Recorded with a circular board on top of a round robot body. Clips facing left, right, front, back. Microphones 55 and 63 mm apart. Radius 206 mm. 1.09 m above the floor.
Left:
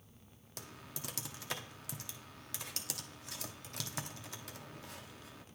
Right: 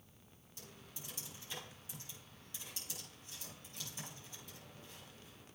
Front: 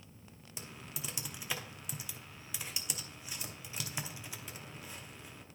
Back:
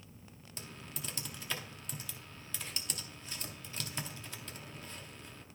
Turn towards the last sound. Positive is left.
turn(degrees=80)